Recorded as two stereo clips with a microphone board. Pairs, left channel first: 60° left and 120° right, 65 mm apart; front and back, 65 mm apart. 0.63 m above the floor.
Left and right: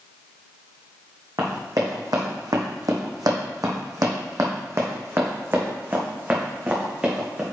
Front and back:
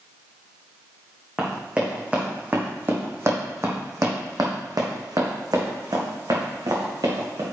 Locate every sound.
1.4 s running footsteps: 100° right, 2.5 m; by 7.4 s 170° left, 3 m